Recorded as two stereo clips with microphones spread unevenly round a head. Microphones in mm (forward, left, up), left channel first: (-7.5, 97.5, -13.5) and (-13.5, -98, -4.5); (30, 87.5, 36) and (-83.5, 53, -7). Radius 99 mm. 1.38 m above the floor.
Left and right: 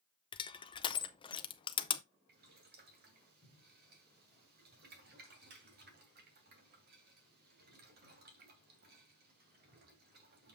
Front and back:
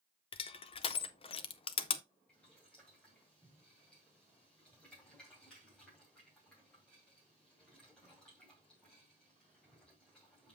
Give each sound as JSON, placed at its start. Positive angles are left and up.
{"t": 0.3, "sound": "crushing", "azimuth_deg": 20, "distance_m": 0.6}
{"t": 2.3, "sound": "boiling", "azimuth_deg": -55, "distance_m": 2.0}